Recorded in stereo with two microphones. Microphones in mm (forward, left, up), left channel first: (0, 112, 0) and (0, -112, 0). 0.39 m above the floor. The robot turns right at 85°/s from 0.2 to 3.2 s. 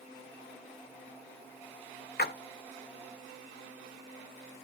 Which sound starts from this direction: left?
A splash, at 2.2 s.